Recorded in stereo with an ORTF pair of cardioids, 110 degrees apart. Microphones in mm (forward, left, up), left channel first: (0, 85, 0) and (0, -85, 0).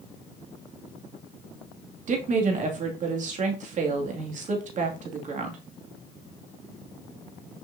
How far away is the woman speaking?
About 2.5 m.